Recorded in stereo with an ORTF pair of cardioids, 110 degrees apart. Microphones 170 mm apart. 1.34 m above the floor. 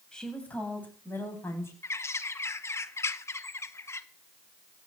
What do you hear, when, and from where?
0.1 s a woman speaking: 5° left, 7 m; by 1.7 s 15° left, 8.5 m
1.8 s a bird: 15° left, 1.0 m